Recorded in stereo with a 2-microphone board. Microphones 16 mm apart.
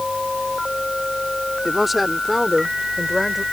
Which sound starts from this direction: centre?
A woman speaking, at 1.6 s.